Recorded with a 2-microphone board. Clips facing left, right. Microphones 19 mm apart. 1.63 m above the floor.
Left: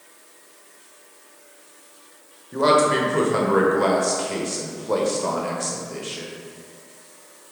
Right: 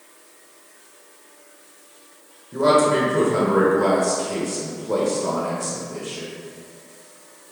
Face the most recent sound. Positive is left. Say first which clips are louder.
# right 1 dB
turn(degrees=35)  # may be behind; listen again after turning